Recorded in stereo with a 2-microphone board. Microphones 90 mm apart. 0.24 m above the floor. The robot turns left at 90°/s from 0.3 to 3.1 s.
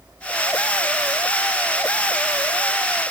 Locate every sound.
Only background noise.